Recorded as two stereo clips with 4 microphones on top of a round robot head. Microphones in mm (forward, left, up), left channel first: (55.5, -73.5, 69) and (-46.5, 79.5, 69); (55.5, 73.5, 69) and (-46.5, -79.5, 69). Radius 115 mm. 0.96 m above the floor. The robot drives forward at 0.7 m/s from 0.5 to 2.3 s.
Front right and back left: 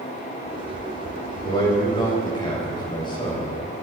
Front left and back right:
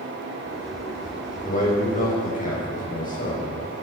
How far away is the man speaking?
About 6.5 m.